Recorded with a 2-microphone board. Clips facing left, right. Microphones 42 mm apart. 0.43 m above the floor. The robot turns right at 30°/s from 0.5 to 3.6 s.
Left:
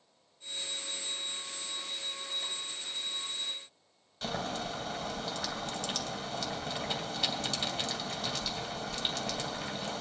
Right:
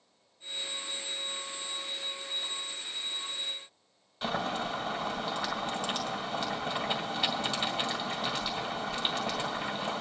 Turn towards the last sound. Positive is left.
turn(degrees=-15)  # may be behind; listen again after turning